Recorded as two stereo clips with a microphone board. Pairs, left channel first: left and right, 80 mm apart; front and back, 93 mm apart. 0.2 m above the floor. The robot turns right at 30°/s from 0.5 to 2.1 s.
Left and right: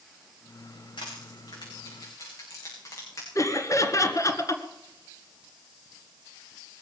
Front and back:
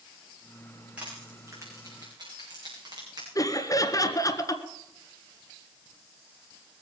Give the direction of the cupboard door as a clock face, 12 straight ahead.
No cupboard door in this recording.